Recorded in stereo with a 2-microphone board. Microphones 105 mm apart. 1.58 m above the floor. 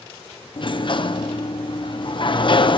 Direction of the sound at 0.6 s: 50° left (ahead or behind).